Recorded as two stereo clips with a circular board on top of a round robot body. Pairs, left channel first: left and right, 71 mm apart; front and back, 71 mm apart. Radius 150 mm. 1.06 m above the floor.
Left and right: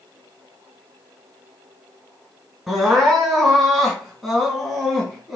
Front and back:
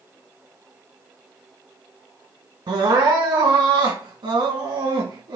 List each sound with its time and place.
2.7 s crying: straight behind, 2 m